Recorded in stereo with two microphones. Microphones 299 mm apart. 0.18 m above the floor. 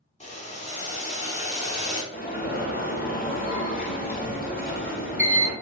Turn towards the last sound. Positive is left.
turn(degrees=30)  # may be behind; listen again after turning